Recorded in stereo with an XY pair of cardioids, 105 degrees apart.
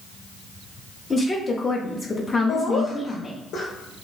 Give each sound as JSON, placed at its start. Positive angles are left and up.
{"t": 1.1, "sound": "a woman speaking", "azimuth_deg": 30, "distance_m": 0.6}
{"t": 2.5, "sound": "laughter", "azimuth_deg": 65, "distance_m": 0.6}